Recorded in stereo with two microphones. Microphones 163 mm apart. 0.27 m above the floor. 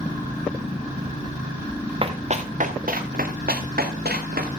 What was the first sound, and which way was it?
Running footsteps, 40° right (ahead or behind).